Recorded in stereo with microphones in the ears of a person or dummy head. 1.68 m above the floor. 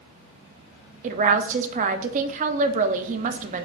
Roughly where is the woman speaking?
Right.